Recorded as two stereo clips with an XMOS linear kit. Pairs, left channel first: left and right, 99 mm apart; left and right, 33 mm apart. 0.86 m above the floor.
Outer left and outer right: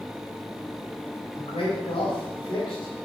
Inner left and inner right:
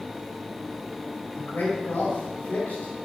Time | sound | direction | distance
1.4 | a man speaking | 75° left (ahead or behind) | 3.5 m